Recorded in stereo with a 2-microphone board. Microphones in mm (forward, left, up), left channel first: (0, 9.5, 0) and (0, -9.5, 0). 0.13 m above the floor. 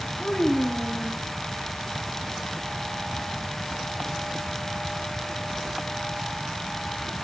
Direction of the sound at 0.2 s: 55° left (ahead or behind).